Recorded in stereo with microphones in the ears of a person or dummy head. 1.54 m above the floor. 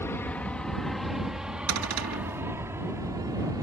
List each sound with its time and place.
0.0 s an aircraft: 10° left (ahead or behind); by 3.6 s 20° right (ahead or behind)
1.7 s a cupboard door: 90° right